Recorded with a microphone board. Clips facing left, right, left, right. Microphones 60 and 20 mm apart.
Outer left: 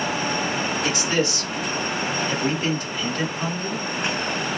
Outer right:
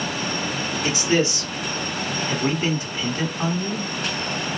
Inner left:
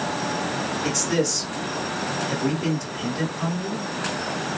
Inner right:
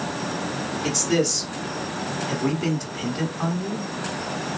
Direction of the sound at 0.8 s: 25° right (ahead or behind).